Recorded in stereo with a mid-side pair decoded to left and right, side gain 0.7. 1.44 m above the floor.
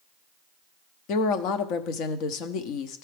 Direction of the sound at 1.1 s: 60° left.